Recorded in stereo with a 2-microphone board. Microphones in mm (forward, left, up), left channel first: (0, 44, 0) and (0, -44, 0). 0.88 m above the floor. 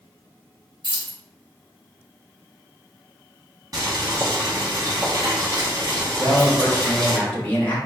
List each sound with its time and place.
0.8 s keys jangling: 65° right (ahead or behind), 1.7 m
3.7 s boiling: 40° right (ahead or behind), 1.6 m
6.2 s a man speaking: 20° left (ahead or behind), 1.5 m